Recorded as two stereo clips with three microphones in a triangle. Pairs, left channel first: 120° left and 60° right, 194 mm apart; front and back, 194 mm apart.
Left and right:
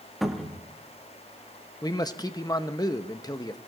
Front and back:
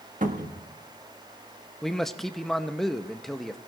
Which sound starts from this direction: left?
A man speaking, at 1.8 s.